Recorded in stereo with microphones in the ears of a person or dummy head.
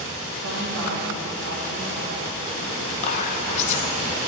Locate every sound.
0.4 s a woman speaking: 80° right, 1.5 m
3.0 s whispering: 45° left (ahead or behind), 0.8 m